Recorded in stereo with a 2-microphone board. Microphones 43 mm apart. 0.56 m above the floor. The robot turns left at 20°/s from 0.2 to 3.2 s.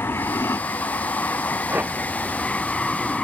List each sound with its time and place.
0.0 s an aircraft: 70° left (ahead or behind); by 3.2 s 15° left (ahead or behind)
1.7 s a whoosh: 40° right (ahead or behind); by 1.9 s 45° right (ahead or behind)